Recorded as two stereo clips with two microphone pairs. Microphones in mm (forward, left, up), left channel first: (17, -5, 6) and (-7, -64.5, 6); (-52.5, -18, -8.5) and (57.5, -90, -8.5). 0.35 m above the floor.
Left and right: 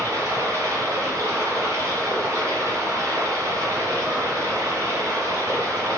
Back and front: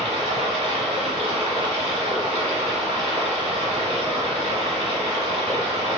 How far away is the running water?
About 1.8 m.